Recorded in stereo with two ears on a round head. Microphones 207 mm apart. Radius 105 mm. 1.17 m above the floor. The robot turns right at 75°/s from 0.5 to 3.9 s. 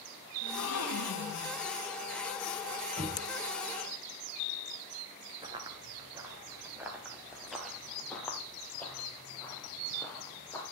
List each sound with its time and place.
0.4 s a gasp: 50° left, 1.9 m; by 1.6 s 135° left, 1.9 m
3.0 s knocking: 30° right (ahead or behind), 4.5 m; by 3.2 s 15° right (ahead or behind), 4.5 m
5.4 s running footsteps: 20° right (ahead or behind), 1.2 m; by 10.6 s 10° left (ahead or behind), 2.5 m